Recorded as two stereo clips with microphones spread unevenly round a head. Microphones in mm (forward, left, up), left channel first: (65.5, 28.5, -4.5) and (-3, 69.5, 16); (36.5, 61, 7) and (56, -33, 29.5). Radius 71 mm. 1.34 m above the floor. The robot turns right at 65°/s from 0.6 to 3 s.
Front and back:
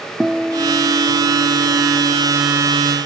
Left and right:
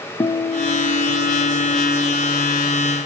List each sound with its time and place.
0.2 s a guitar: 60° left, 0.5 m; by 2.6 s 175° right, 0.5 m